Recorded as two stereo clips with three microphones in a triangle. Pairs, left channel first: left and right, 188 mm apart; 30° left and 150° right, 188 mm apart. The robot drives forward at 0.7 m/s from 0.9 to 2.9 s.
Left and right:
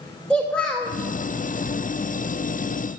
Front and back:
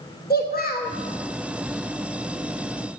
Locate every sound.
0.3 s a child speaking: 10° left, 0.7 m